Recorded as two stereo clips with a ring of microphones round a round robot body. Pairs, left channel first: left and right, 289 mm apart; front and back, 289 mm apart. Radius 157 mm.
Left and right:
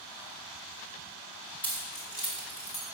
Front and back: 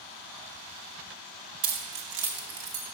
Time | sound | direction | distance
1.6 | keys jangling | 175° left | 0.9 m